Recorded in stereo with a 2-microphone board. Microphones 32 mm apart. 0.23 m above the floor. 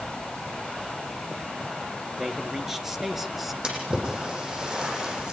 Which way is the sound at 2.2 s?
15° right (ahead or behind).